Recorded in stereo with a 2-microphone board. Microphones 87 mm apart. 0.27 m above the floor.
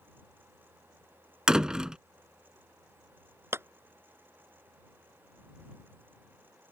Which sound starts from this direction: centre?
A door slam, at 1.5 s.